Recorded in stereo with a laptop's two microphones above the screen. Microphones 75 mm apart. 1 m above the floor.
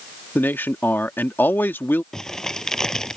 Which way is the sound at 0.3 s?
25° left (ahead or behind).